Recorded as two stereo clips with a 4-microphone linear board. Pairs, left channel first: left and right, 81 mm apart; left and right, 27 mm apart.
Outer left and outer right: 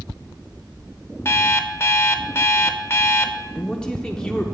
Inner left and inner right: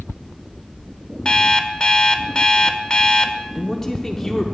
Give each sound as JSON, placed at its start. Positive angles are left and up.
{"t": 1.2, "sound": "an alarm clock", "side_deg": 30, "distance_m": 0.6}
{"t": 3.5, "sound": "a man speaking", "side_deg": 10, "distance_m": 0.7}